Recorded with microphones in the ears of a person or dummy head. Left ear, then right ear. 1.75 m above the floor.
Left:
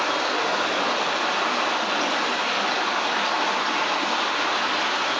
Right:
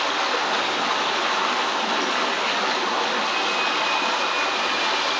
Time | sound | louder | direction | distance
0.0 | running water | right 1 dB | 10° right (ahead or behind) | 1.3 m